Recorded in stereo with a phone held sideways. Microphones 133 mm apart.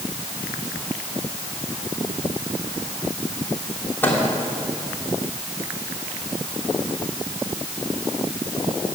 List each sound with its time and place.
4.0 s a microwave: 15° left (ahead or behind), 3 m